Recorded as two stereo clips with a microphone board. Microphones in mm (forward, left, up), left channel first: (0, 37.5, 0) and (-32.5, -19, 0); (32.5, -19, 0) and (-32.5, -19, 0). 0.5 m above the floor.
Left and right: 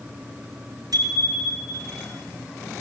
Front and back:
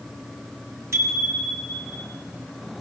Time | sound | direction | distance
0.9 | a bicycle bell | 135° right | 5.5 m